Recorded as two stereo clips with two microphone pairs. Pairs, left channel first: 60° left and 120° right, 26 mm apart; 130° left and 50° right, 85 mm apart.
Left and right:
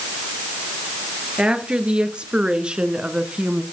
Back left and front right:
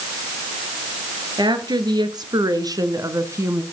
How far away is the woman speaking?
About 3.5 m.